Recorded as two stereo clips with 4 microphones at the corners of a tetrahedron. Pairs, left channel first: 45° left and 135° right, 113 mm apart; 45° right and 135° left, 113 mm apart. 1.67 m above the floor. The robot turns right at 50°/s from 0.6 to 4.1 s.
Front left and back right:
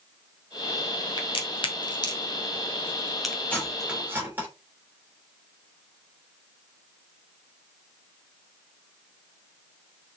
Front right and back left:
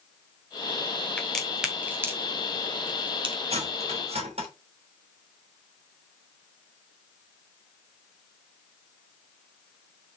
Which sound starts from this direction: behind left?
Cutlery clinking, at 3.5 s.